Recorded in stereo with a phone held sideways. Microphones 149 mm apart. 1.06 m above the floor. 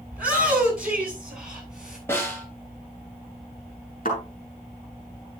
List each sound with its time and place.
0.1 s a shout: 10° right (ahead or behind), 9 m; by 2.0 s 5° right (ahead or behind), 8 m
2.1 s a snare drum: 15° left (ahead or behind), 4 m
4.0 s a thud: 65° left (ahead or behind), 7 m